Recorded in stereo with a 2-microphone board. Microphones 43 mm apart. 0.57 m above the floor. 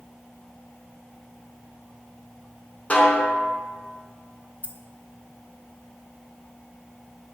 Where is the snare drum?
35° left (ahead or behind), 3 m.